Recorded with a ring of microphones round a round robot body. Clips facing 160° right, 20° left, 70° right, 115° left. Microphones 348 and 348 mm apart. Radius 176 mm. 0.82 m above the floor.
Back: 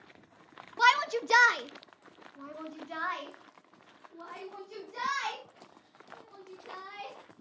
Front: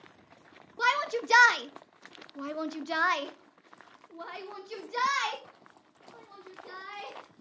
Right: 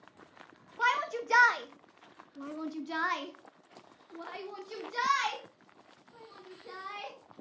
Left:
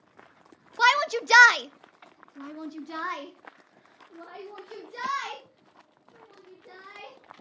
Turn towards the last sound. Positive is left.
turn(degrees=-10)